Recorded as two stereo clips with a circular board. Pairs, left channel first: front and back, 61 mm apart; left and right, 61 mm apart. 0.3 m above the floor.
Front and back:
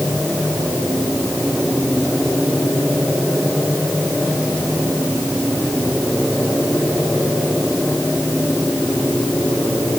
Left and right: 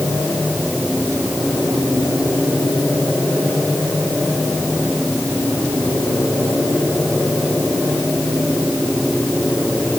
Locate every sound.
Only background noise.